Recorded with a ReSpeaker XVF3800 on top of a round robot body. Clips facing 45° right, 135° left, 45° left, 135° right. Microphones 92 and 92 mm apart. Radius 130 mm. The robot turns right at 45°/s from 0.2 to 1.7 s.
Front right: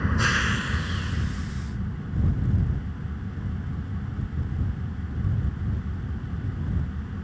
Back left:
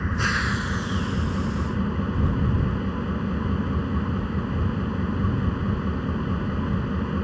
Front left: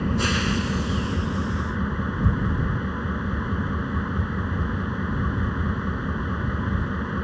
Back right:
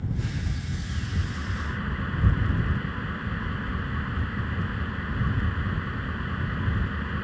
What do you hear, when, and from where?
0.0 s an engine running: 45° left; by 7.3 s 110° left